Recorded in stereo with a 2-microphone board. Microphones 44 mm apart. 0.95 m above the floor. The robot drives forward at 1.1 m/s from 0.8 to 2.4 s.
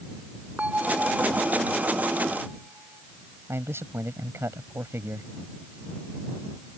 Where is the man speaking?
80° right.